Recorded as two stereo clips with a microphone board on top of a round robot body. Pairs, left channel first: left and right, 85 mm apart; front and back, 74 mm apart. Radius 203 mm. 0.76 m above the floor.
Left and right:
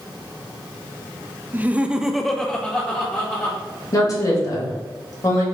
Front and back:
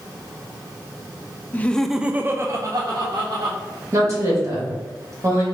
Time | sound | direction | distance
1.5 | laughter | 40° right | 0.6 m
3.9 | a woman speaking | 135° left | 2 m